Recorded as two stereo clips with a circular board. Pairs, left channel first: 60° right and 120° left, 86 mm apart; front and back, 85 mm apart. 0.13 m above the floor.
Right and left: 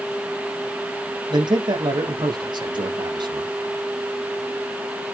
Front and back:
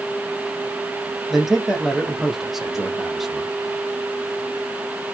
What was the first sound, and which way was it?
A man speaking, 90° left.